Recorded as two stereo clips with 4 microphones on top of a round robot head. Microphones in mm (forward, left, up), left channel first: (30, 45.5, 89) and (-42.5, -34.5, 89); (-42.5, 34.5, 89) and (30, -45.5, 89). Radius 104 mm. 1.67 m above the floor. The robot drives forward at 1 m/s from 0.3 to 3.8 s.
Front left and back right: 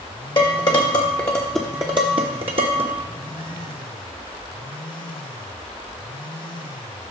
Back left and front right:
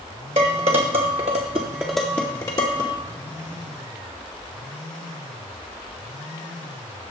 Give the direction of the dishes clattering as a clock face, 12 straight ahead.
12 o'clock.